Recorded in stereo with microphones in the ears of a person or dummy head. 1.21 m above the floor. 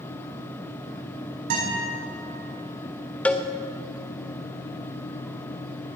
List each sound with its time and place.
1.5 s a guitar: 55° right (ahead or behind), 5 m
3.2 s a cowbell: 10° left (ahead or behind), 0.5 m